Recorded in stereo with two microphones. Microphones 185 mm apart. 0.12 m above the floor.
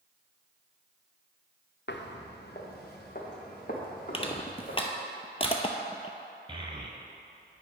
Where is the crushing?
35° left (ahead or behind), 0.6 m.